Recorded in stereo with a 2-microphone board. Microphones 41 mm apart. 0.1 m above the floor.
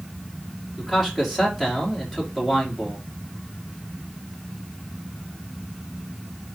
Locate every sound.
0.8 s a man speaking: 10° right (ahead or behind), 3.5 m